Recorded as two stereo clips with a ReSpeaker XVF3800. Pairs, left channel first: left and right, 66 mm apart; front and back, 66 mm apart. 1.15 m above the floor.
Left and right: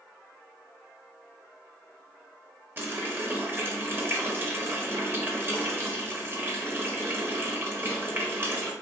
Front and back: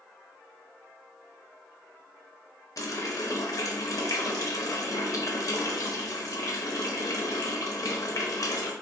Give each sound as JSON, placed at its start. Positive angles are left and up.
{"t": 2.8, "sound": "a running tap", "azimuth_deg": -30, "distance_m": 0.9}